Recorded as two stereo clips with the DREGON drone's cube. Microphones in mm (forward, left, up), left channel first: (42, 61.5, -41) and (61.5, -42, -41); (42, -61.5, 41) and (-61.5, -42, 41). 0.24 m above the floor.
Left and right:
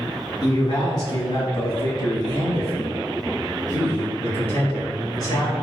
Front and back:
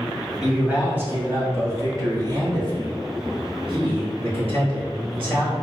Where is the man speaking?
90° left, 1.3 m; by 5.5 s 145° left, 3.5 m.